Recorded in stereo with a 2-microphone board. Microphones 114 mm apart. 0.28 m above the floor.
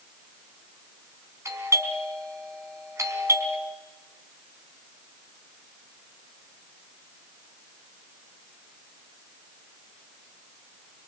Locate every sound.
1.4 s a doorbell: 25° right (ahead or behind), 4 m